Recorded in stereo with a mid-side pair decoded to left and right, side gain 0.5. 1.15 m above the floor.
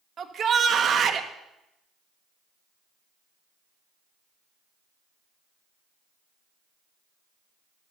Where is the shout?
45° right, 1.5 m.